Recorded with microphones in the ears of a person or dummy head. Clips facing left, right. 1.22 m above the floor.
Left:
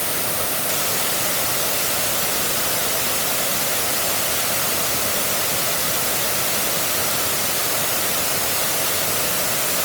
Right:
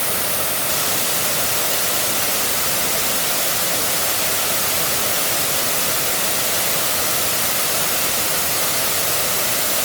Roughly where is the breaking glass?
I don't hear breaking glass.